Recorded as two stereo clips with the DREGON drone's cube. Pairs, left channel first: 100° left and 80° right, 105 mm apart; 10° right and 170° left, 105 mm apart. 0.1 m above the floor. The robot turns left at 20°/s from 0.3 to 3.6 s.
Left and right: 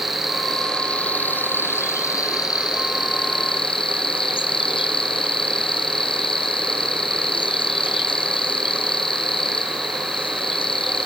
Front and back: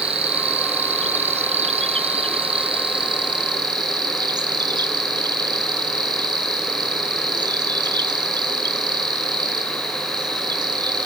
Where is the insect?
170° right, 0.8 m; by 11.1 s 125° left, 0.8 m.